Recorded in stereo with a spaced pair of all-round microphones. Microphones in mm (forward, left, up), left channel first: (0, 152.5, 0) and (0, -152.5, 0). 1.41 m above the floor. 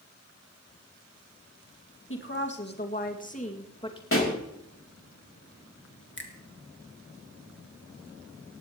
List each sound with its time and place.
2.1 s a woman speaking: 40° left (ahead or behind), 2 m; by 4.0 s 15° left (ahead or behind), 2.5 m
4.1 s a pop: 45° left (ahead or behind), 3 m
6.2 s a finger snap: 40° left (ahead or behind), 1.9 m